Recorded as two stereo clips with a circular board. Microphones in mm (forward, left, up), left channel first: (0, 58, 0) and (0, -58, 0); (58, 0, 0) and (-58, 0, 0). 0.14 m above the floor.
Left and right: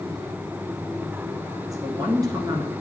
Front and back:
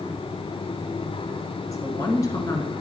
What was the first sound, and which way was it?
A woman speaking, 50° right.